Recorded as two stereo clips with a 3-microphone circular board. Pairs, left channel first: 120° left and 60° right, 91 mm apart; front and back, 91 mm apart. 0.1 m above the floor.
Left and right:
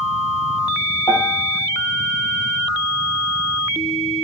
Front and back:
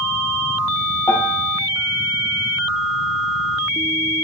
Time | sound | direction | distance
1.1 | a piano | 65° left | 3 m